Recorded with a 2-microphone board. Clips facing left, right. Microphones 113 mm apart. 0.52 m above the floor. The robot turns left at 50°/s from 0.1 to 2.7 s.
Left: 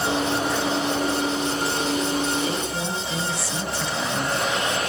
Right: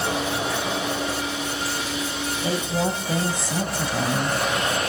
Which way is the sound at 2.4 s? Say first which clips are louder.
Right 2 dB; 30° right (ahead or behind).